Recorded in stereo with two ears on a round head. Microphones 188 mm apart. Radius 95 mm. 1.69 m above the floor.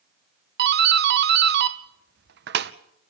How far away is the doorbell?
About 0.9 m.